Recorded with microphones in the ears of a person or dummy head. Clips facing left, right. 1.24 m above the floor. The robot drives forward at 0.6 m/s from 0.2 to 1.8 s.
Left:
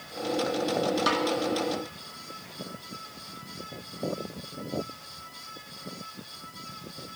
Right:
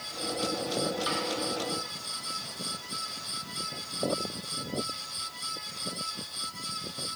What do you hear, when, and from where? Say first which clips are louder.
1.1 s a snare drum: left 6 dB; 65° left (ahead or behind), 1.6 m; by 1.3 s 60° left (ahead or behind), 1.7 m